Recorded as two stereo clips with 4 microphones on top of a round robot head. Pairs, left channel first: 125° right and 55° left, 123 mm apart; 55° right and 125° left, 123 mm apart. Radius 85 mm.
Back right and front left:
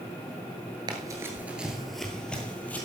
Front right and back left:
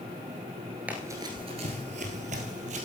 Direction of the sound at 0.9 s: 60° left.